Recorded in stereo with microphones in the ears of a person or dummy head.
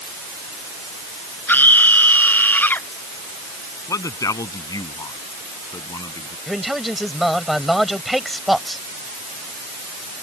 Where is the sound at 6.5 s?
5° right (ahead or behind).